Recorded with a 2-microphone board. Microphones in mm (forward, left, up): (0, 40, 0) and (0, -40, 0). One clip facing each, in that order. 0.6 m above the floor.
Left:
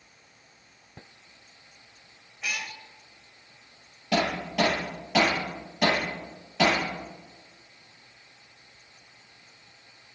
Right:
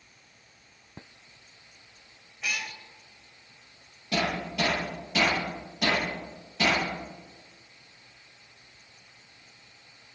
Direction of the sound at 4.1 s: 85° left.